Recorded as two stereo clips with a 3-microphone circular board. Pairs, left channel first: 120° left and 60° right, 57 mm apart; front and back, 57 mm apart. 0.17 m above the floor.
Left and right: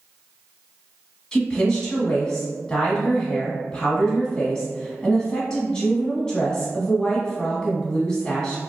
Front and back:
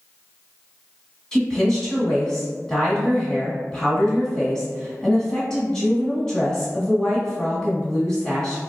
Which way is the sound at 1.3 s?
65° left.